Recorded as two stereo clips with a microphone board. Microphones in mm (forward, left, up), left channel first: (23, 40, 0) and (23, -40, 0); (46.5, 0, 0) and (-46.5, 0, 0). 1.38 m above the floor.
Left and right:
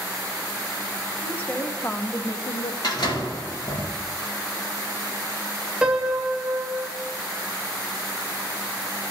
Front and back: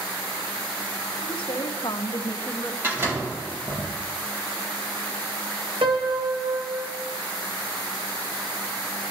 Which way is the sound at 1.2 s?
20° left.